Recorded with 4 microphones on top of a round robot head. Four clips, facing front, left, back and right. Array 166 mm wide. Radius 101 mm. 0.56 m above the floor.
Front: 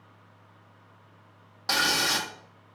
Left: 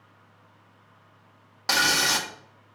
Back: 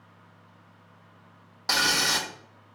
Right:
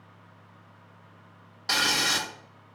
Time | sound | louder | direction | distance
1.7 | frying | left 3 dB, even | 90° left | 0.9 m